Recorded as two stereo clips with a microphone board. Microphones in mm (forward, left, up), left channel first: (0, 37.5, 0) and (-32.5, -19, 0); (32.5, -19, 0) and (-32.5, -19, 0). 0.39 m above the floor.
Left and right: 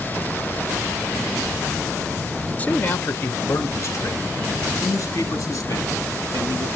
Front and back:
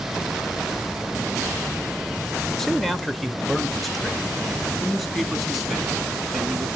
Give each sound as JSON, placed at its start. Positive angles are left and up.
{"t": 2.6, "sound": "a man speaking", "azimuth_deg": 80, "distance_m": 1.0}